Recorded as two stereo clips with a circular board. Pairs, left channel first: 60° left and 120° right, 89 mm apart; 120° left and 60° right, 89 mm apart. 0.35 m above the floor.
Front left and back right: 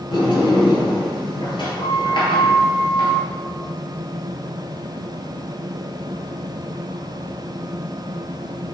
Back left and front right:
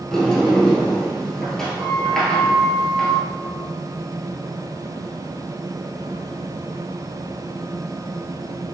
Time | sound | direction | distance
0.1 | a sliding door | 35° left | 1.2 m